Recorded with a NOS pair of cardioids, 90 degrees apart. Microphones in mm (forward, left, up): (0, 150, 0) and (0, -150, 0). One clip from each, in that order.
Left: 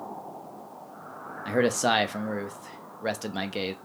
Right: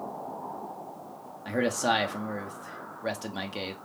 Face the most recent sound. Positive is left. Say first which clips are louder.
# left 3 dB
turn(degrees=20)